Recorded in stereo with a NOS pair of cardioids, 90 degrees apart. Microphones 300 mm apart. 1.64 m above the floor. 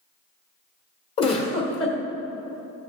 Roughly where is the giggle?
Ahead left.